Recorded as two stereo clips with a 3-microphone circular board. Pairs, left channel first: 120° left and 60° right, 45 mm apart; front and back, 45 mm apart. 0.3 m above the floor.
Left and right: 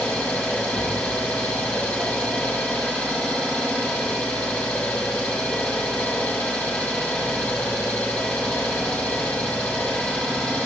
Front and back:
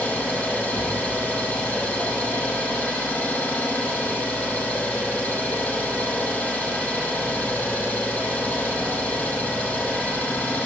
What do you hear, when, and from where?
0.0 s an engine running: 60° left, 9.5 m